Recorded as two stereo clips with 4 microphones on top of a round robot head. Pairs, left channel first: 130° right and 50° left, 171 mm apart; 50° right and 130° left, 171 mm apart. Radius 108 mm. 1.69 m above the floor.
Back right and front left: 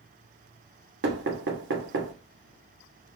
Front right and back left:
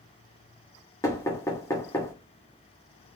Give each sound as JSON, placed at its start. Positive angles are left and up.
{"t": 1.0, "sound": "knocking", "azimuth_deg": 25, "distance_m": 1.0}